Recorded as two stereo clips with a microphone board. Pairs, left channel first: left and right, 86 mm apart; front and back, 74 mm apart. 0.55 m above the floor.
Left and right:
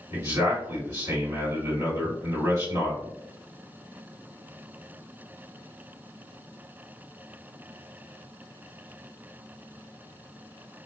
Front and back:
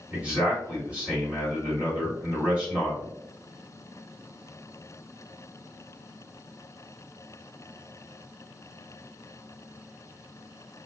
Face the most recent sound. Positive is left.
turn(degrees=-115)